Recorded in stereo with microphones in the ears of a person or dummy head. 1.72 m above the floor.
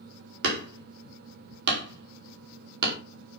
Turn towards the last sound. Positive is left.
turn(degrees=-65)  # may be behind; listen again after turning